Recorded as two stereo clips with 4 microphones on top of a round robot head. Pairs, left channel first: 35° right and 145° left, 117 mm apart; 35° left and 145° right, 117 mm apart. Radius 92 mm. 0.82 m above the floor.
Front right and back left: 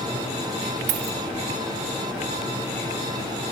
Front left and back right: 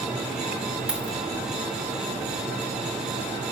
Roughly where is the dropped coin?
Behind left.